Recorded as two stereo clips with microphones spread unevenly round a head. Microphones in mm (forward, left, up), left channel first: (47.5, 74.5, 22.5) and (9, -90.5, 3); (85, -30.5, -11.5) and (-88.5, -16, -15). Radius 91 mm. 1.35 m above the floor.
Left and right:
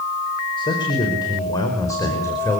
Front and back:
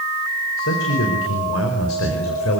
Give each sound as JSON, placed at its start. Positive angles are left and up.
{"t": 0.6, "sound": "a man speaking", "azimuth_deg": 15, "distance_m": 5.0}